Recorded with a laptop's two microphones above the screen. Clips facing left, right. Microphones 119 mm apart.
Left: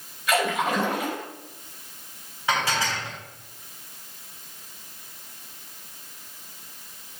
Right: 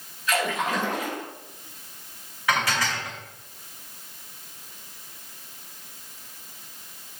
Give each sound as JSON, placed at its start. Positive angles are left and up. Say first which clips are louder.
{"t": 0.3, "sound": "a splash", "louder": "left 2 dB", "side_deg": 65, "distance_m": 5.5}
{"t": 2.5, "sound": "dishes clattering", "louder": "even", "side_deg": 25, "distance_m": 4.0}